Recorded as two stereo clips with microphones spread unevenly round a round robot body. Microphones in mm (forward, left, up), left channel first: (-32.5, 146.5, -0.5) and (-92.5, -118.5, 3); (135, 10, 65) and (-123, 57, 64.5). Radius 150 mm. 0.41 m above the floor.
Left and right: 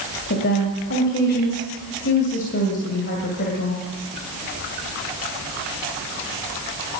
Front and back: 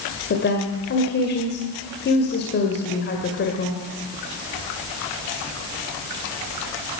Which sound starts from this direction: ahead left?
A woman speaking, at 0.3 s.